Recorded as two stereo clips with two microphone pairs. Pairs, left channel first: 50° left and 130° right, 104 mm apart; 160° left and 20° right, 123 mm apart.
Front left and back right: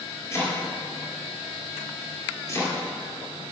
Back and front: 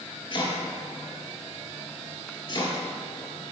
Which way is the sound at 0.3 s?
115° left.